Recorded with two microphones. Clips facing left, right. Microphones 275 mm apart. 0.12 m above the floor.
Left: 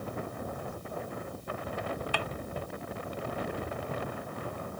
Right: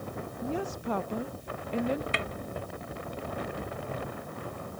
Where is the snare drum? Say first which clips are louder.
Right 1 dB; 20° right (ahead or behind).